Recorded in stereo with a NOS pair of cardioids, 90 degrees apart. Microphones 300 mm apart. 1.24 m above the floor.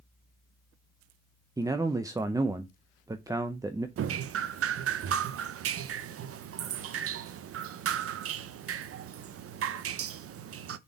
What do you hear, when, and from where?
1.6 s a man speaking: 10° right, 0.7 m
4.0 s dripping: 50° right, 0.7 m